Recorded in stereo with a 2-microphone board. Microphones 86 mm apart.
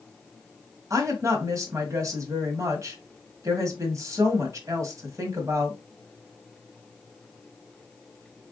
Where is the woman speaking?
35° right (ahead or behind), 1.4 m.